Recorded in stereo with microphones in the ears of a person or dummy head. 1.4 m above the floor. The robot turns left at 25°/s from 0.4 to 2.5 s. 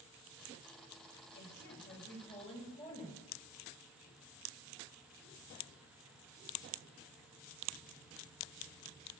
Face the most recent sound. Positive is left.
turn(degrees=35)  # may be behind; listen again after turning